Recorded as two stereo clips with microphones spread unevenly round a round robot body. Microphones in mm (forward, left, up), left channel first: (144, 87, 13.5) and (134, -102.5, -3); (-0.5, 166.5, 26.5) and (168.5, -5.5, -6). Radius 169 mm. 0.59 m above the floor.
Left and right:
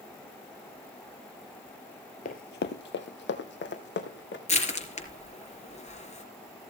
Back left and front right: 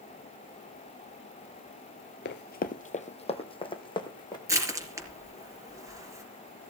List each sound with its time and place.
2.2 s running footsteps: 120° left, 0.8 m; by 4.4 s 65° left, 3.5 m
4.5 s crushing: 35° left, 4.5 m